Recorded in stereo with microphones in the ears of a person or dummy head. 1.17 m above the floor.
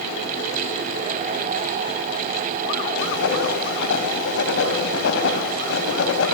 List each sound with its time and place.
3.0 s writing: 70° left (ahead or behind), 4 m